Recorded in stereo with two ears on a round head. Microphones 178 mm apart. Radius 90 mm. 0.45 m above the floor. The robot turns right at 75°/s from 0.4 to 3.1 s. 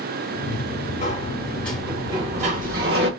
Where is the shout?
No shout in this recording.